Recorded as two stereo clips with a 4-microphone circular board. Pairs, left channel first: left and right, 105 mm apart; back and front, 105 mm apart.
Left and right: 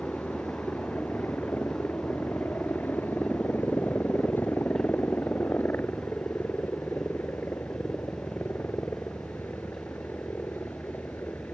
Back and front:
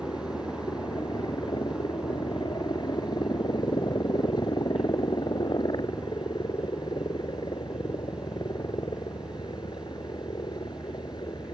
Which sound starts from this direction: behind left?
A helicopter, at 0.0 s.